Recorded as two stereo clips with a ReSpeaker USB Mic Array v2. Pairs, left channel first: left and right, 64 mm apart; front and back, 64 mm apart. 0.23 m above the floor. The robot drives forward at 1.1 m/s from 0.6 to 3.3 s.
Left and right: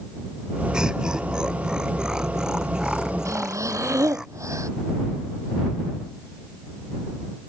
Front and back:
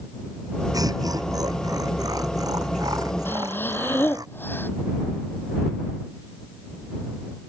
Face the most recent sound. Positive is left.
turn(degrees=-55)